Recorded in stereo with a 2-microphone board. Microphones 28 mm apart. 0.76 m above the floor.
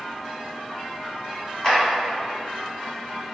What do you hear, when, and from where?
1.6 s a clap: 15° left (ahead or behind), 1.6 m